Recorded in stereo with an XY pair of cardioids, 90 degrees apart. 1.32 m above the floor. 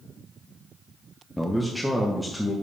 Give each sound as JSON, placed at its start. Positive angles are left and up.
{"t": 1.4, "sound": "a man speaking", "azimuth_deg": 0, "distance_m": 0.9}